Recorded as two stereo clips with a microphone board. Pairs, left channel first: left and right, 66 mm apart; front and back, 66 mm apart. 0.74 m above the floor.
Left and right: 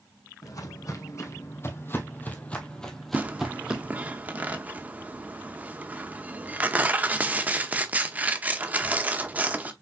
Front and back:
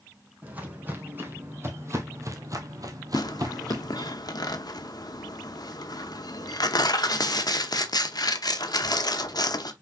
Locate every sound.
0.4 s footsteps: 115° left, 1.9 m; by 4.1 s 160° right, 1.5 m
3.1 s tearing paper: 20° right, 0.7 m